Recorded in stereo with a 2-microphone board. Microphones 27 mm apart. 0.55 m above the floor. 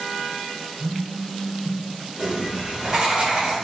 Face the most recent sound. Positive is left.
turn(degrees=-40)  # may be behind; listen again after turning